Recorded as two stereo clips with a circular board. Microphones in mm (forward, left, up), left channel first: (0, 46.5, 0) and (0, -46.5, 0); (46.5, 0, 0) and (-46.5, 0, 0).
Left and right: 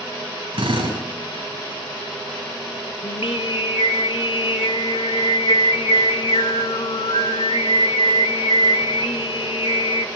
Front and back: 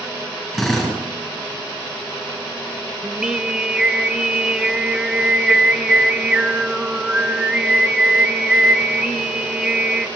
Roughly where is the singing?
Left.